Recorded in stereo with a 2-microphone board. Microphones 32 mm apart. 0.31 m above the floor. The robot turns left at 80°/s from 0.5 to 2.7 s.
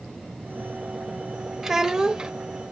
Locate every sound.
1.6 s a child speaking: 10° right (ahead or behind), 0.9 m; by 2.3 s 20° right (ahead or behind), 0.9 m